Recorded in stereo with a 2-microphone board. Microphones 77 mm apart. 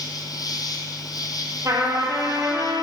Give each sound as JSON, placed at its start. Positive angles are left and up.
{"t": 0.0, "sound": "an insect", "side_deg": 55, "distance_m": 0.9}
{"t": 1.6, "sound": "a trumpet", "side_deg": -50, "distance_m": 2.0}